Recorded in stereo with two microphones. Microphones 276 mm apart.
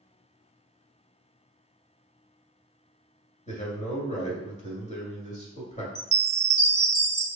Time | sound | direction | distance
3.5 | a man speaking | 25° left (ahead or behind) | 1.5 m
6.0 | a chime | 30° right (ahead or behind) | 1.2 m